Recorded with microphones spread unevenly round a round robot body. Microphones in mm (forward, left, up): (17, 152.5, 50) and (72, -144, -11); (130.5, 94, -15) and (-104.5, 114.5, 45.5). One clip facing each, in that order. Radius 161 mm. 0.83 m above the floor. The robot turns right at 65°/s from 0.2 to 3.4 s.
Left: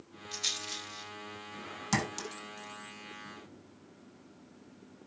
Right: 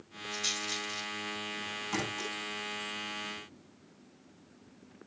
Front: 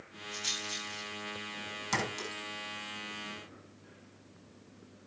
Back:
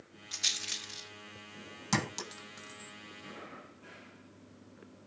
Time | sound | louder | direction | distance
0.3 | a rattle | right 7 dB, front 8 dB | 170° left | 4.5 m
1.9 | a clink | left 2 dB, back 2 dB | 135° left | 5.5 m